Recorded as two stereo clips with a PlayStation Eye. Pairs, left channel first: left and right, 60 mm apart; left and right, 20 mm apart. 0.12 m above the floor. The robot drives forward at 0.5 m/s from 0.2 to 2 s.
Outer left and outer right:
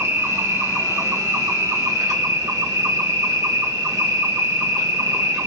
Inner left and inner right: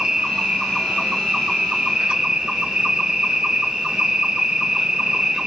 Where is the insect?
40° right (ahead or behind), 1.7 m; by 5.5 s 70° right (ahead or behind), 1.2 m.